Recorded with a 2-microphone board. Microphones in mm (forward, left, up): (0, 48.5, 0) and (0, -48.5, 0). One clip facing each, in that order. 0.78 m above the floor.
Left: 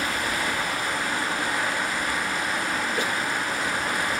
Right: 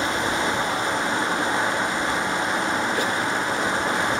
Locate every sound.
0.0 s running water: 25° right (ahead or behind), 0.8 m